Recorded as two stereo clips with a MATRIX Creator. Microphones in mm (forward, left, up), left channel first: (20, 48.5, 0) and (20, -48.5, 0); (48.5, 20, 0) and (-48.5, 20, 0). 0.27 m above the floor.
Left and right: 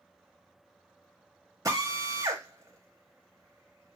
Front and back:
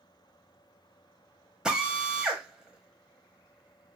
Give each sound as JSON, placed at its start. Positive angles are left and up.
{"t": 1.6, "sound": "a drill", "azimuth_deg": -105, "distance_m": 0.9}